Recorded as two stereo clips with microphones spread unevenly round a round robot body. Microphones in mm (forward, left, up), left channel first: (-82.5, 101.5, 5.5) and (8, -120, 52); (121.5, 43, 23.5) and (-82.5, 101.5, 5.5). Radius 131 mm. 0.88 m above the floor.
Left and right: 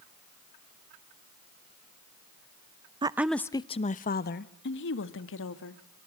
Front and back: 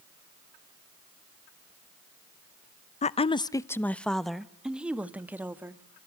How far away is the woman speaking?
About 0.5 m.